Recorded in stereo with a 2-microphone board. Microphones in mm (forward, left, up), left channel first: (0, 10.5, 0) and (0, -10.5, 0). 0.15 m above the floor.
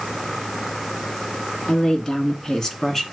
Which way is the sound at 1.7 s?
50° left (ahead or behind).